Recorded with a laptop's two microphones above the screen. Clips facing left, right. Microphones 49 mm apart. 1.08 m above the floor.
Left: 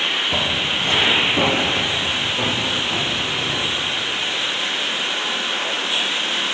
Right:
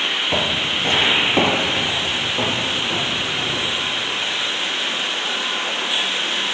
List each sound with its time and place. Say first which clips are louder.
0.3 s footsteps: even; 30° right (ahead or behind), 1.4 m